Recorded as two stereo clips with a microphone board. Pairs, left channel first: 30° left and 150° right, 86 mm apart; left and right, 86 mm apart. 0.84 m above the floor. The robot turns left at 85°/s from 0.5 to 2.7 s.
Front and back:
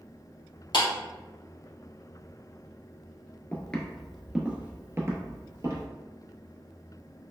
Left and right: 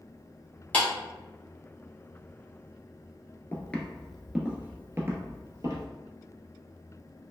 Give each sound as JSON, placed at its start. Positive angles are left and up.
{"t": 0.7, "sound": "a clap", "azimuth_deg": 20, "distance_m": 1.3}
{"t": 3.5, "sound": "footsteps", "azimuth_deg": 65, "distance_m": 0.8}